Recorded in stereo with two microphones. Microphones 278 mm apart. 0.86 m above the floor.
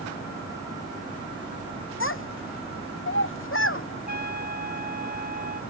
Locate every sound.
2.0 s a child speaking: 50° left (ahead or behind)
4.1 s a trumpet: 75° left (ahead or behind)